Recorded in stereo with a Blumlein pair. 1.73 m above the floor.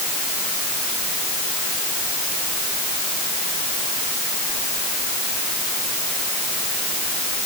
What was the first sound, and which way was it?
Only background noise.